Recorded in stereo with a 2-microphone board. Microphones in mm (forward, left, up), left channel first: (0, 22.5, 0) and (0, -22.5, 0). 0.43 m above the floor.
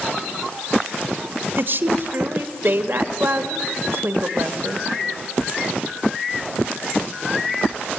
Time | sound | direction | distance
1.6 | a woman speaking | 55° right (ahead or behind) | 1.2 m